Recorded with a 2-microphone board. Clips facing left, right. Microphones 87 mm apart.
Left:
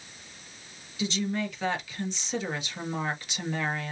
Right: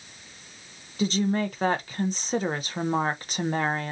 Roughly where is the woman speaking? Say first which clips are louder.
Right 5 dB; right.